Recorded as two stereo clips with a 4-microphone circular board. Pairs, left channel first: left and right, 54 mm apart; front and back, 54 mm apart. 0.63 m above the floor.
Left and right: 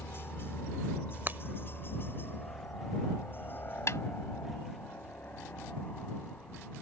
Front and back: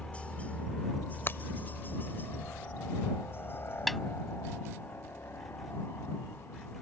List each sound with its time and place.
0.0 s a helicopter: 60° left; by 6.8 s 35° left
1.3 s breaking glass: 45° right
3.9 s a snare drum: 85° left